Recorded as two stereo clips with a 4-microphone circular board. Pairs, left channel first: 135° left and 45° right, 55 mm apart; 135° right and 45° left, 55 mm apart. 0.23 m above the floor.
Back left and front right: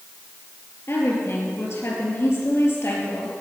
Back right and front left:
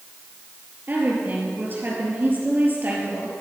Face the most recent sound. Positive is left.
turn(degrees=100)